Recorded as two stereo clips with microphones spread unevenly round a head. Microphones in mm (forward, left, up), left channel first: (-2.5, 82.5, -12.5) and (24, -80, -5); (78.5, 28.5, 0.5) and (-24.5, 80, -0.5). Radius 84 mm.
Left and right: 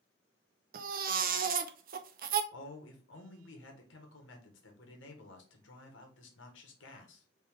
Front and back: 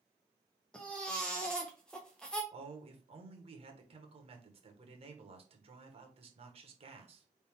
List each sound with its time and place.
0.7 s a baby crying: 110° right, 0.6 m
2.5 s a man speaking: 120° left, 1.5 m